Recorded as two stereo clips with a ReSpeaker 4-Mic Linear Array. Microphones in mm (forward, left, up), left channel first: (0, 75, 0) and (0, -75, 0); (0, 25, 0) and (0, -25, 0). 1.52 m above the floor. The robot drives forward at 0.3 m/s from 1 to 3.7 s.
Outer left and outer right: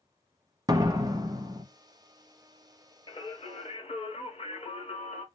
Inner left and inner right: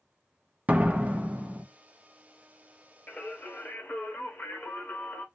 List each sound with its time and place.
0.7 s a door slam: 25° right (ahead or behind), 0.6 m
3.1 s singing: 30° left (ahead or behind), 0.7 m; by 5.2 s 40° left (ahead or behind), 0.6 m